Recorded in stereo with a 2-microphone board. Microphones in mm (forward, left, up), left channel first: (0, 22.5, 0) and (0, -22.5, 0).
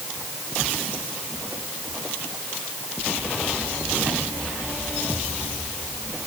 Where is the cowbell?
I don't hear a cowbell.